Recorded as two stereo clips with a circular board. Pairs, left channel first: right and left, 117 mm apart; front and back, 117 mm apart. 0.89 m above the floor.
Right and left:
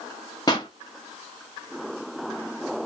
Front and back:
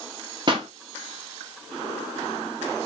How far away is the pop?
About 1.0 m.